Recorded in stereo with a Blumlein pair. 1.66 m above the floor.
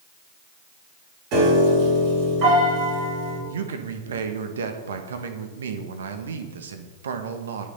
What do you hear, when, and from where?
1.3 s a piano: 45° right, 7 m
3.5 s a man speaking: 65° right, 1.6 m